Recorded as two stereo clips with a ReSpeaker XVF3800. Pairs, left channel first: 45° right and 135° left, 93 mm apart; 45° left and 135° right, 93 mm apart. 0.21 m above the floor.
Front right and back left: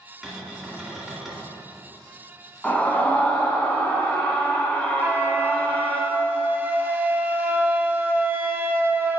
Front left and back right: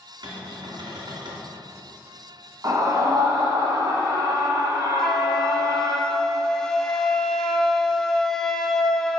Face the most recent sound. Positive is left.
turn(degrees=120)